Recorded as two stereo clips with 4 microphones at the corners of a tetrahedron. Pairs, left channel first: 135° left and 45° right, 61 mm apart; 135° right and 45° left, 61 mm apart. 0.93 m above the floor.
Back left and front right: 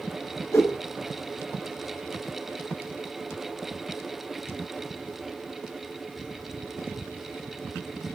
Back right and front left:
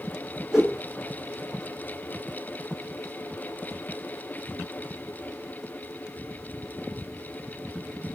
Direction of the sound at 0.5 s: 125° left.